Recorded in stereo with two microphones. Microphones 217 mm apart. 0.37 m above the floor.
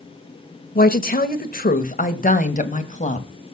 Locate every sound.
0.8 s a woman speaking: 40° left (ahead or behind), 1.1 m; by 3.3 s 35° left (ahead or behind), 2 m